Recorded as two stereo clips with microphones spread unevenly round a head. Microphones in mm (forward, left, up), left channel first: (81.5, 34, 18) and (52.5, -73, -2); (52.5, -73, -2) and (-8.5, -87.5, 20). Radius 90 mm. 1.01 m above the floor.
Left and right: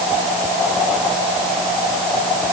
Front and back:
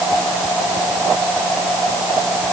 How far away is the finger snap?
No finger snap in this recording.